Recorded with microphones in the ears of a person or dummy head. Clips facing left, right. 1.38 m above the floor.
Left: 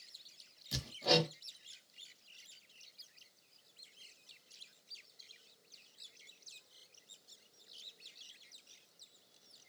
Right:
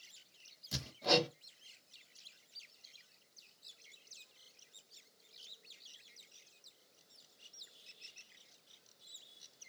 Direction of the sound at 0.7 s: 5° left (ahead or behind).